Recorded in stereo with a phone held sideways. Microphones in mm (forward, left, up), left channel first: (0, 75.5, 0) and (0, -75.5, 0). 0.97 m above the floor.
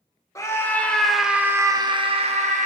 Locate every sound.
0.3 s a scream: 20° left (ahead or behind), 1.2 m; by 2.7 s 55° right (ahead or behind), 1.0 m